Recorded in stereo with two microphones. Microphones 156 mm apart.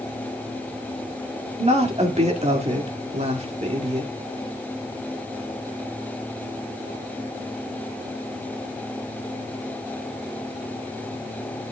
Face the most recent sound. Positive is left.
turn(degrees=-45)  # may be behind; listen again after turning